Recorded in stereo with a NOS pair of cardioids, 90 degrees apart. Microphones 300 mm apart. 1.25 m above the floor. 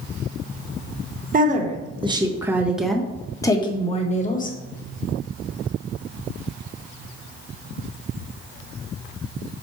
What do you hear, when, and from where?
1.3 s a woman speaking: 30° right, 1.7 m; by 4.6 s 30° left, 1.8 m